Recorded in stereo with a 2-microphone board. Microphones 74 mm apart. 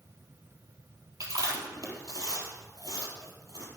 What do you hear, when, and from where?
1.2 s chewing: 50° right (ahead or behind), 3.5 m